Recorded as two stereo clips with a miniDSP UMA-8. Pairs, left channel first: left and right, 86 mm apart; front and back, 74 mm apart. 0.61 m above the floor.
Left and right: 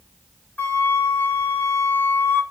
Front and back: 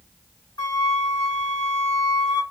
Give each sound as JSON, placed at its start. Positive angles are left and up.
{"t": 0.6, "sound": "a flute", "azimuth_deg": 25, "distance_m": 0.6}